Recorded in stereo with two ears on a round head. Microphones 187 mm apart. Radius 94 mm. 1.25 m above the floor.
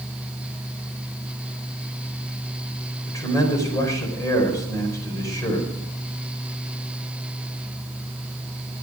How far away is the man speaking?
About 4.5 m.